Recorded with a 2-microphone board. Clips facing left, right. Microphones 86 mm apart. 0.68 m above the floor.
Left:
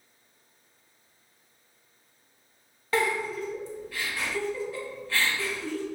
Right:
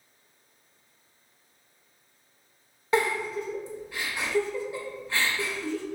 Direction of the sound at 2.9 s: 20° right (ahead or behind).